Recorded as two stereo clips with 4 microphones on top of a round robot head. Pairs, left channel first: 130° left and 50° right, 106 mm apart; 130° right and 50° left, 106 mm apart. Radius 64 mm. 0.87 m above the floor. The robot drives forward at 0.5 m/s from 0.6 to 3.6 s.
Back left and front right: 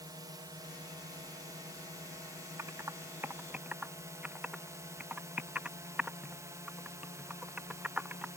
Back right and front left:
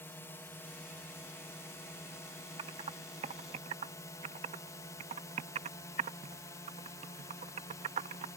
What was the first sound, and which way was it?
A drone, 70° right.